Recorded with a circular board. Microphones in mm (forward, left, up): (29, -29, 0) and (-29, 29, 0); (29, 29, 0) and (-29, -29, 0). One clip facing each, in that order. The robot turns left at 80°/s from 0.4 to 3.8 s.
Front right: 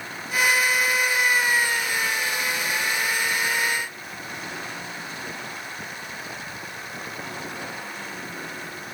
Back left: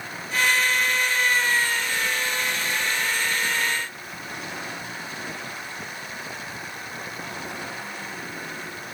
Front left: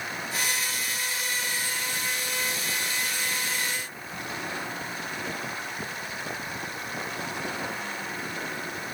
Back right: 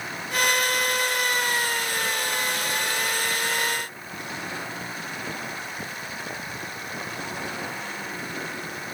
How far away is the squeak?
I don't hear a squeak.